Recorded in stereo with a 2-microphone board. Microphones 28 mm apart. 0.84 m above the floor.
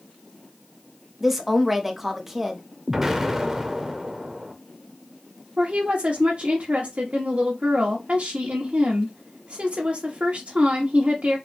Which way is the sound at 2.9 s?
15° right (ahead or behind).